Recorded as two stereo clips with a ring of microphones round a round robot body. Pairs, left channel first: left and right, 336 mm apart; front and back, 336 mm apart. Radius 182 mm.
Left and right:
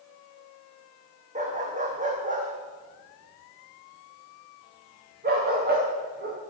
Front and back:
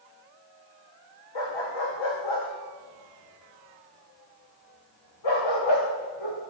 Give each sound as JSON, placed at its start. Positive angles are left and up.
{"t": 1.4, "sound": "a dog barking", "azimuth_deg": -20, "distance_m": 9.5}